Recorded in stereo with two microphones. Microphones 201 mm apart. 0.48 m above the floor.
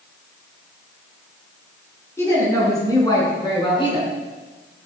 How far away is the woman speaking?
About 6 m.